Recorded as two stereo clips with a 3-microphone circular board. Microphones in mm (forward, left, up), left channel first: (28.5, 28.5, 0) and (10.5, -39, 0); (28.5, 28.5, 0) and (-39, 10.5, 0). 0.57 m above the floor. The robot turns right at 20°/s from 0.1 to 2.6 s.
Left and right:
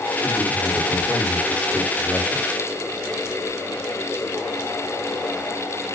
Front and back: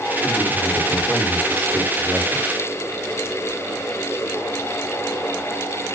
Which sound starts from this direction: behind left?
A man speaking, at 0.2 s.